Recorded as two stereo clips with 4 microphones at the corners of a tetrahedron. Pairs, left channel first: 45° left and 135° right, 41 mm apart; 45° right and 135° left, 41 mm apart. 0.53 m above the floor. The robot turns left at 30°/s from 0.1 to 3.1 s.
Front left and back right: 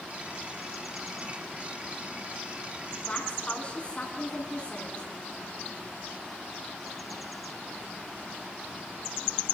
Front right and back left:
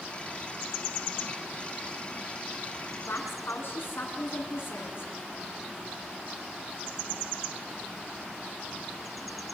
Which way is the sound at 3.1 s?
15° right.